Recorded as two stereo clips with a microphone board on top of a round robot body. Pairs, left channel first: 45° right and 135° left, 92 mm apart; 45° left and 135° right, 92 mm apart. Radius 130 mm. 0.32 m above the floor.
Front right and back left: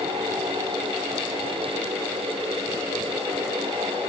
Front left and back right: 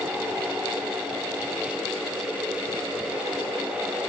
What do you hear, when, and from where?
Only background noise.